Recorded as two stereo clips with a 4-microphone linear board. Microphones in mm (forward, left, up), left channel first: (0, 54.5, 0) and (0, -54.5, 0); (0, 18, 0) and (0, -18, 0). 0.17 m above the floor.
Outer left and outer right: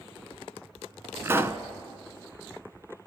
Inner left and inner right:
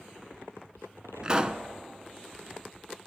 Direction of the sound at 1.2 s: 25° right (ahead or behind).